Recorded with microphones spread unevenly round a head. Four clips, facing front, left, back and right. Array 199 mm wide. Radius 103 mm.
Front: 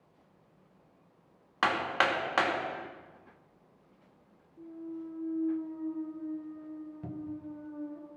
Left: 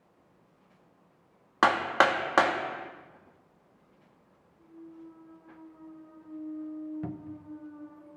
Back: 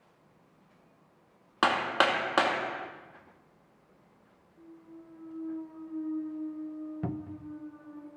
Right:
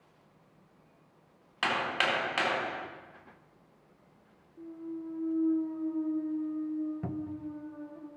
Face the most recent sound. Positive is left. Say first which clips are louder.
# right 3 dB, back 2 dB
turn(degrees=-160)